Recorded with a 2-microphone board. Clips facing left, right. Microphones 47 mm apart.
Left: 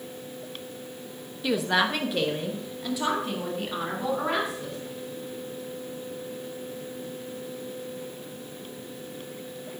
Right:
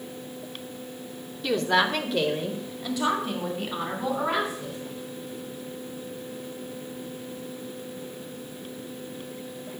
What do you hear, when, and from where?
1.4 s a woman speaking: 5° left (ahead or behind), 0.9 m; by 4.8 s centre (ahead or behind), 3.5 m